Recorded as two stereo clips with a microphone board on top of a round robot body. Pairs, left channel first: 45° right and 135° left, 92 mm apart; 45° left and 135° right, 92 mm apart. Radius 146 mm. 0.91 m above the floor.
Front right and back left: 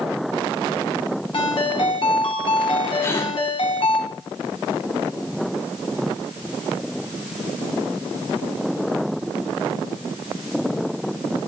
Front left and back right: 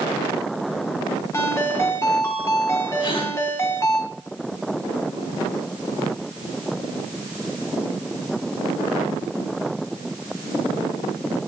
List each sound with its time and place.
1.3 s a ringtone: 15° right, 2 m
3.0 s a gasp: 10° left, 5.5 m